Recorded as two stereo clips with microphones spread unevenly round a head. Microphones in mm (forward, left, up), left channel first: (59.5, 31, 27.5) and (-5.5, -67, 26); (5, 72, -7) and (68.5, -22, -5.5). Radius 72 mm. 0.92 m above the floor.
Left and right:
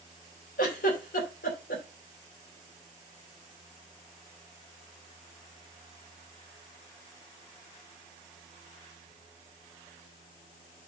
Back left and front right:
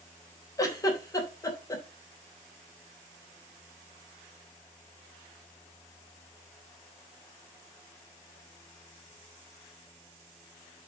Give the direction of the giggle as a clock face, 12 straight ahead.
10 o'clock.